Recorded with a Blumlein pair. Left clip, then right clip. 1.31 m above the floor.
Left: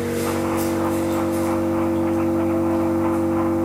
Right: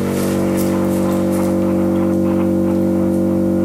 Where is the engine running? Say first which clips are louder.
Right 4 dB; 20° right, 2 m.